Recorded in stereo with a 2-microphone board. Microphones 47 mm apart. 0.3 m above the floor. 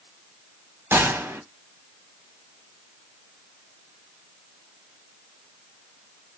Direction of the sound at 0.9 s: 60° right (ahead or behind).